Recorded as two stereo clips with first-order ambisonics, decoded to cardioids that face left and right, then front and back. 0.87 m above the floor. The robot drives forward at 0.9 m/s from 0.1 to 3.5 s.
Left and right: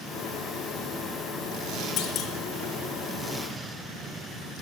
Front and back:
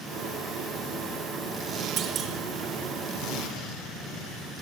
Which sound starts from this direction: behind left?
A clunk, at 2.0 s.